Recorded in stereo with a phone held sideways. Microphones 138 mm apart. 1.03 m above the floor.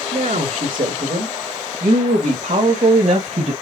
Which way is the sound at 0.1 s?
80° right.